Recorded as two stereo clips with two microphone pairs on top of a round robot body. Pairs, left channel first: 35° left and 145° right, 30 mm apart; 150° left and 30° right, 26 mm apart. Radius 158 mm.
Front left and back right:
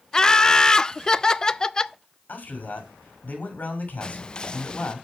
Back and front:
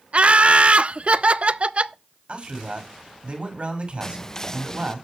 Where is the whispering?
80° left, 0.6 m.